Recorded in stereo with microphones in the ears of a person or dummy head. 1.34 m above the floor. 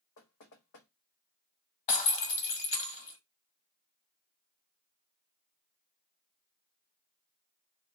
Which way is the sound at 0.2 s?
60° left (ahead or behind).